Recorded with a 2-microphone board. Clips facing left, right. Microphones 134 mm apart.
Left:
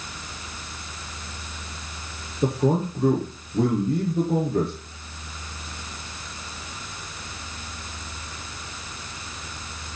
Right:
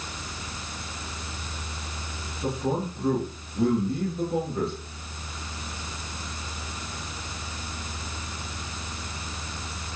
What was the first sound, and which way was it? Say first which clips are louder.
A man speaking: left 6 dB; 70° left (ahead or behind).